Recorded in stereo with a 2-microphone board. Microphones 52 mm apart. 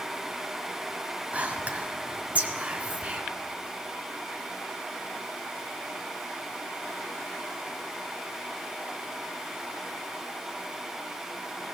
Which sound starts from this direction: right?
Whispering, at 1.3 s.